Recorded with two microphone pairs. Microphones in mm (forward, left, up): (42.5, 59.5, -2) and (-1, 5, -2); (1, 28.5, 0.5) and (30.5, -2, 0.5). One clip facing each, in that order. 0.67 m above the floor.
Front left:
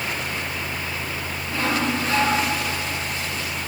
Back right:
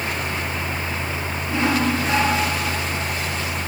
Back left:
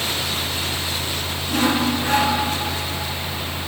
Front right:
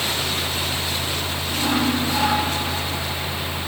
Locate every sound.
1.5 s sawing: 165° left, 9 m